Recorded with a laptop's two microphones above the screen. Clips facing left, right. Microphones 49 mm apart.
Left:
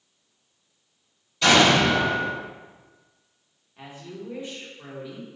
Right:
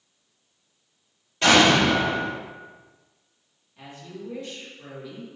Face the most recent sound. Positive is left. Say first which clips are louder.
# left 1 dB
turn(degrees=20)  # may be behind; listen again after turning